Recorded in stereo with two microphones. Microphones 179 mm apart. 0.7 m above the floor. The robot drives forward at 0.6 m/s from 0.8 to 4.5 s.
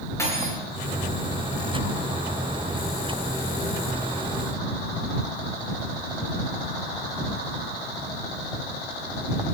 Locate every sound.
0.2 s cutlery clinking: 15° left (ahead or behind), 7.5 m